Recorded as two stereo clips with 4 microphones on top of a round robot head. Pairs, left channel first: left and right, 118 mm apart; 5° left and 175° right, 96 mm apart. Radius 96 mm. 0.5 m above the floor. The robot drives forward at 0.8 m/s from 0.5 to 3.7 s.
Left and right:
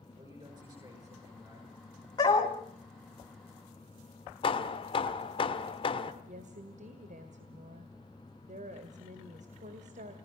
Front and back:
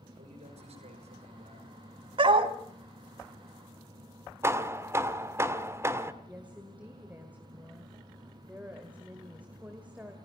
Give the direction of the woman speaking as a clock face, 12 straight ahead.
3 o'clock.